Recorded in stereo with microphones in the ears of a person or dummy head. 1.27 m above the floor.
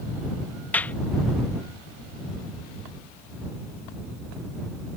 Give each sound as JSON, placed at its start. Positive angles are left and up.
{"t": 0.7, "sound": "a clap", "side_deg": 5}